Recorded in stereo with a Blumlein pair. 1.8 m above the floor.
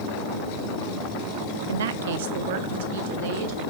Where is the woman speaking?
60° right, 0.5 m; by 3.6 s 50° right, 2.0 m.